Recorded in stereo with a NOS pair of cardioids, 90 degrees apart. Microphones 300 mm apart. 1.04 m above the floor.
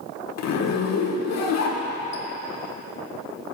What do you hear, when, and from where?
0.4 s a zipper: 60° left, 1.3 m